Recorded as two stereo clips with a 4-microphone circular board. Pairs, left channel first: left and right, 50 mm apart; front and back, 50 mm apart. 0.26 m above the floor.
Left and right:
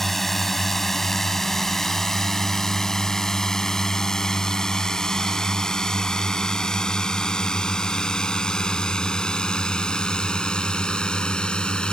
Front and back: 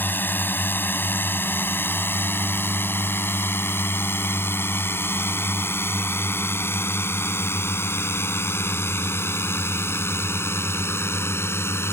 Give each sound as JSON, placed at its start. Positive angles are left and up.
{"t": 0.0, "sound": "a drone", "azimuth_deg": 5}